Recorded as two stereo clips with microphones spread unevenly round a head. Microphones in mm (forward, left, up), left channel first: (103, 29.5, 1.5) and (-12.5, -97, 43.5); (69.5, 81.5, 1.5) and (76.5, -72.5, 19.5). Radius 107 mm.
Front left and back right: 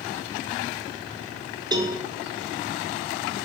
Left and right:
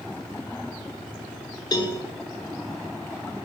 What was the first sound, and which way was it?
A cowbell, 150° left.